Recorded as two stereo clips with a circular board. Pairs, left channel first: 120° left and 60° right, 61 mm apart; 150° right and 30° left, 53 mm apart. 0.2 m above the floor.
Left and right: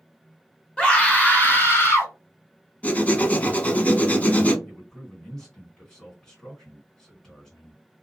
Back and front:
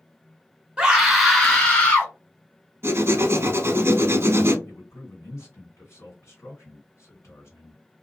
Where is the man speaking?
160° right, 2.5 m.